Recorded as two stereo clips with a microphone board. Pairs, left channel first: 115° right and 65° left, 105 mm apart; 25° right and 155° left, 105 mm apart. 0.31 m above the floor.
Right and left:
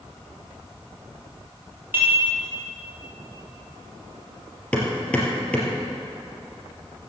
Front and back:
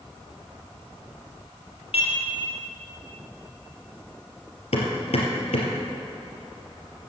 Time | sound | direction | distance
1.9 | dishes clattering | straight ahead | 5 m
4.7 | hammering | 35° right | 3 m